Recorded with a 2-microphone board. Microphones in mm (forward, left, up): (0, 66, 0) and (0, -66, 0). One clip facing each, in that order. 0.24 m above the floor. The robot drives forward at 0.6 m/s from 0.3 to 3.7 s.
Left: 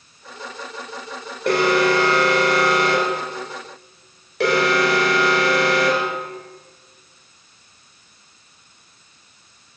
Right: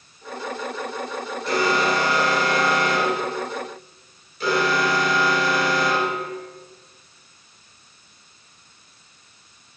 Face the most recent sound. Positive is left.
turn(degrees=70)  # may be behind; listen again after turning